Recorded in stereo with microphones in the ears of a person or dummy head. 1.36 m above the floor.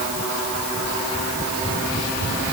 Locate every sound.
Only background noise.